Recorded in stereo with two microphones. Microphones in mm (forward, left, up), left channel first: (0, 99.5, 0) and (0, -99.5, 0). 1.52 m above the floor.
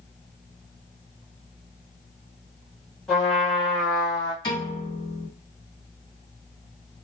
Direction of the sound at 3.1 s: 5° left (ahead or behind).